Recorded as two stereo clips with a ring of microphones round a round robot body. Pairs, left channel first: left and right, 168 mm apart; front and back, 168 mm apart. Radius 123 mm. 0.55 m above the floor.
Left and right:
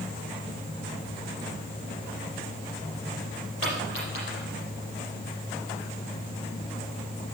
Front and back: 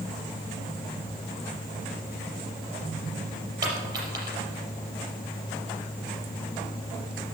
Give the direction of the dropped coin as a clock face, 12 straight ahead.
8 o'clock.